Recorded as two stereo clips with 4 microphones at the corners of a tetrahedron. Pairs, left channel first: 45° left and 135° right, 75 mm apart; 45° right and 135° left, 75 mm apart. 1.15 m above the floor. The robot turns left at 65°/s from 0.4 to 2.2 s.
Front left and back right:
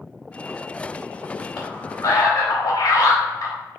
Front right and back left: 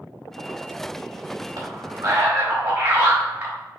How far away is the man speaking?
About 2.5 m.